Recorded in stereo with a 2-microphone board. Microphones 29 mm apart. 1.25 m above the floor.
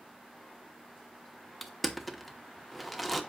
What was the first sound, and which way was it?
Crushing, centre (ahead or behind).